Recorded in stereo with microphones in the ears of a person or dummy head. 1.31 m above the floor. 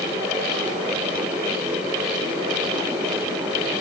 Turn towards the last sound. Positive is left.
No sound to turn to.